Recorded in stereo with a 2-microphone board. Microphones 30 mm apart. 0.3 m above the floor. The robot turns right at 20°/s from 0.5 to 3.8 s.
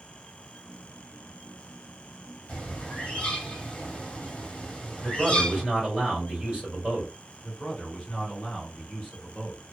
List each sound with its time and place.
2.5 s a bird: 40° left (ahead or behind), 1.3 m; by 5.6 s 35° left (ahead or behind), 1.3 m
5.0 s a man speaking: 25° right (ahead or behind), 1.6 m
7.4 s a man speaking: 20° left (ahead or behind), 1.0 m